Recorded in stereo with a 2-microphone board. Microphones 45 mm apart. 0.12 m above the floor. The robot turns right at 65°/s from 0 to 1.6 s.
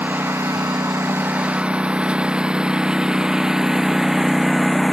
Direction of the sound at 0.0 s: 40° right (ahead or behind).